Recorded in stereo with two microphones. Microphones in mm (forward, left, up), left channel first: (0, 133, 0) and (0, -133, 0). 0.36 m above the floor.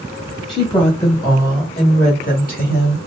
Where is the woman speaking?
Centre (ahead or behind), 1.4 m; by 3.0 s 40° left (ahead or behind), 1.6 m.